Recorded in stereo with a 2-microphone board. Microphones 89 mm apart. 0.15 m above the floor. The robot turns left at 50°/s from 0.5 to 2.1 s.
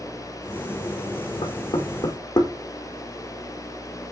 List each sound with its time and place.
1.4 s knocking: 80° left, 7 m; by 2.5 s 50° left (ahead or behind), 7 m